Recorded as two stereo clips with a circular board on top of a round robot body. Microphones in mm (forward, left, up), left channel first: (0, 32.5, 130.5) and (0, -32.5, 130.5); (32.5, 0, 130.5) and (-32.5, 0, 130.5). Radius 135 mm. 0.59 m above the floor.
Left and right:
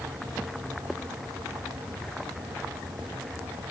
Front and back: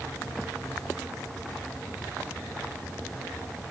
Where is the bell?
I don't hear a bell.